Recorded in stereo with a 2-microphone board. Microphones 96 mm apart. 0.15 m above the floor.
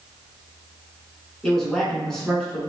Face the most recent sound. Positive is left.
turn(degrees=5)  # may be behind; listen again after turning